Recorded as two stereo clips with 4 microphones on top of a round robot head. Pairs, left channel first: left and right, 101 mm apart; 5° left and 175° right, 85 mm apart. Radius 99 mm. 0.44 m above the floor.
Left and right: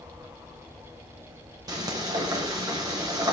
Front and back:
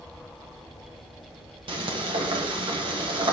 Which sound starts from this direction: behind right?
Frying, at 1.7 s.